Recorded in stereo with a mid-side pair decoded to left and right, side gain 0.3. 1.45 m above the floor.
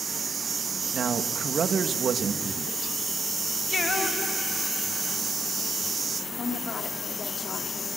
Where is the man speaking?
65° right, 2 m.